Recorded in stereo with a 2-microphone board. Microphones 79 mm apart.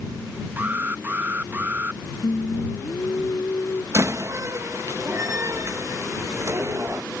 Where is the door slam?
40° right (ahead or behind).